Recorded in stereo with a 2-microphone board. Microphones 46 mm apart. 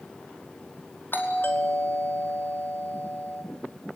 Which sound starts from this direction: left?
A doorbell, at 1.1 s.